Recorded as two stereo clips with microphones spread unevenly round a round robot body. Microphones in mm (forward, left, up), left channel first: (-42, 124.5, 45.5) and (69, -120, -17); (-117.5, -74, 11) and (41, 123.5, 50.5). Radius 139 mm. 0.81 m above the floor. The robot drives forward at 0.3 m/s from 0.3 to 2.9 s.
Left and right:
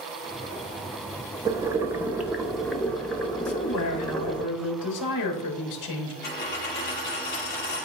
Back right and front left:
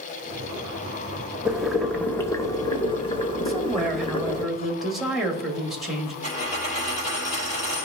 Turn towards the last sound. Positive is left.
turn(degrees=170)